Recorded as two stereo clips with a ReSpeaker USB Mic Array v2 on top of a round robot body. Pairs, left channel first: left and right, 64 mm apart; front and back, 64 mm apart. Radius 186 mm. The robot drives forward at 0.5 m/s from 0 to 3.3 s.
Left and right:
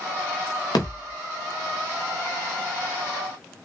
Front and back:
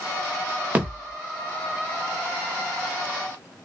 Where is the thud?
110° left, 0.9 m; by 1.1 s 125° left, 1.0 m.